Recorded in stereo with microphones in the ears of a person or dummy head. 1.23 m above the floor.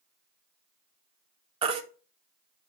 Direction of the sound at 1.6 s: 35° right (ahead or behind).